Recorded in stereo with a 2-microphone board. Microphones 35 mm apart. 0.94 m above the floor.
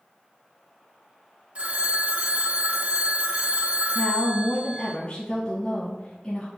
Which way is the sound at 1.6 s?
40° right (ahead or behind).